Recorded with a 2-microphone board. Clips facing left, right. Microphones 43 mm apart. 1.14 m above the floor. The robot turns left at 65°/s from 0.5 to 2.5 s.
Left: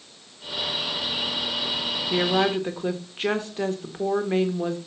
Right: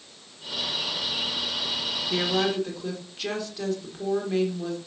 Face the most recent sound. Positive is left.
turn(degrees=35)  # may be behind; listen again after turning